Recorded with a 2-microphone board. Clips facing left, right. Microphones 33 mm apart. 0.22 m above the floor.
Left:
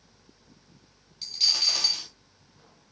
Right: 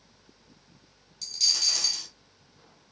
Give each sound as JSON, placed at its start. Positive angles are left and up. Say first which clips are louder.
{"t": 1.2, "sound": "a dropped coin", "louder": "left 2 dB", "side_deg": 25, "distance_m": 0.6}